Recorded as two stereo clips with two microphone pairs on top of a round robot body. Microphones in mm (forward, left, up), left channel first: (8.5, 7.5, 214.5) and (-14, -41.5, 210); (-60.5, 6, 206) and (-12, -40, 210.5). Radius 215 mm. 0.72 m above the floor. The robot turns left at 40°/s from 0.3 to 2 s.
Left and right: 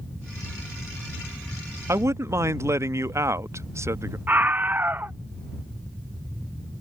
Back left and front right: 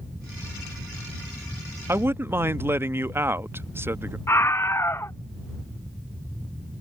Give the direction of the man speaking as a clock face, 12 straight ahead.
3 o'clock.